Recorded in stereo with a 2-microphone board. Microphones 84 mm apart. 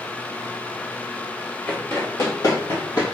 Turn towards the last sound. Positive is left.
turn(degrees=60)  # may be behind; listen again after turning